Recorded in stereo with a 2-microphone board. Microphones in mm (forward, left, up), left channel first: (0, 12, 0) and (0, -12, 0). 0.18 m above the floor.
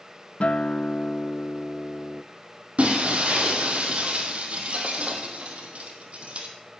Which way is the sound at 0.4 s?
55° left (ahead or behind).